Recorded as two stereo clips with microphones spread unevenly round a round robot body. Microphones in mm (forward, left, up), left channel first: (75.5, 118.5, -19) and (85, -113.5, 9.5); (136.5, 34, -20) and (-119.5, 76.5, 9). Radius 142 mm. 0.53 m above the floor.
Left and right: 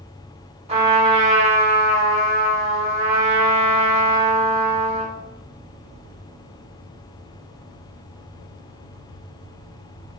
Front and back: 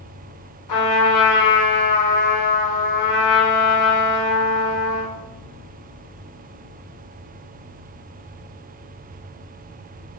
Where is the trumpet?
25° right, 6 m.